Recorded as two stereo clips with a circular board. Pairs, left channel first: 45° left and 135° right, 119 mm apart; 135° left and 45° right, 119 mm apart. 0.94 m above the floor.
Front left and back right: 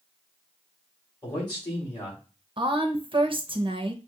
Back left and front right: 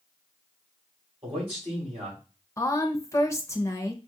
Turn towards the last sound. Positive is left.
turn(degrees=-165)